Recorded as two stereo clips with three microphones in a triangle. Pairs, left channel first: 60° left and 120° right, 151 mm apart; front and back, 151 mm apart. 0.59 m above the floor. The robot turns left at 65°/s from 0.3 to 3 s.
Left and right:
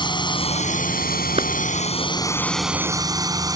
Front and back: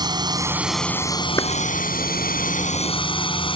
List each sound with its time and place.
0.0 s a drone: 120° left; by 3.6 s 55° right
1.4 s a clap: 70° right; by 1.5 s 75° right